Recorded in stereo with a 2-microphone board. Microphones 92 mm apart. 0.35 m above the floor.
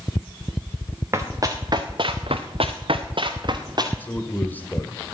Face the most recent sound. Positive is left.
turn(degrees=20)  # may be behind; listen again after turning